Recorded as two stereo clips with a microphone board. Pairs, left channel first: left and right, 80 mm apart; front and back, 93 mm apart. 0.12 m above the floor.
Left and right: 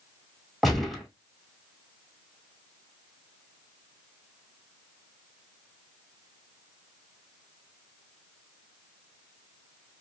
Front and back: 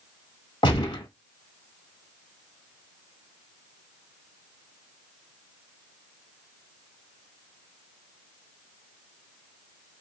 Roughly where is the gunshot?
Ahead.